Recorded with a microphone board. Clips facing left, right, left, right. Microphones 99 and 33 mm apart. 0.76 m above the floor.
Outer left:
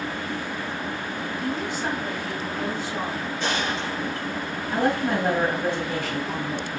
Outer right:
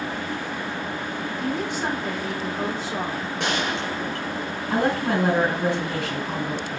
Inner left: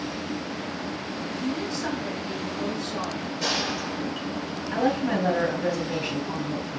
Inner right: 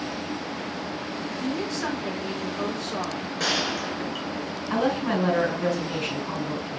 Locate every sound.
1.4 s a woman speaking: 70° right (ahead or behind), 2.5 m
3.4 s a gunshot: 80° right, 2.5 m
4.7 s a woman speaking: 80° right, 5 m